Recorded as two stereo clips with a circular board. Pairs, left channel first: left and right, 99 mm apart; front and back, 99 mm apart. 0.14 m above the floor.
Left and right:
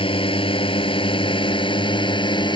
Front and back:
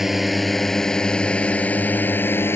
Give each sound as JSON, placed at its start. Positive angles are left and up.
{"t": 0.0, "sound": "a drone", "azimuth_deg": 95}